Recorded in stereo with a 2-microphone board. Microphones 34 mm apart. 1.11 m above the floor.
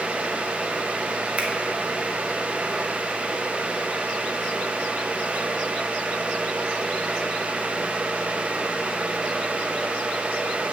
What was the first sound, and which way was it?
A finger snap, 40° right (ahead or behind).